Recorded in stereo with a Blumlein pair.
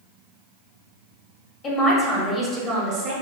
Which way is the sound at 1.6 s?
25° left.